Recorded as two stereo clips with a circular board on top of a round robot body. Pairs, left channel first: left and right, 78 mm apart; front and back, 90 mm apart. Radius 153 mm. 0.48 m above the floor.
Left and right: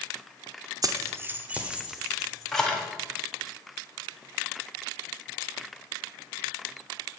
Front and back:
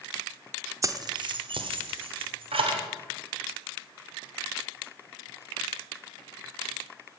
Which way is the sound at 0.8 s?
125° right.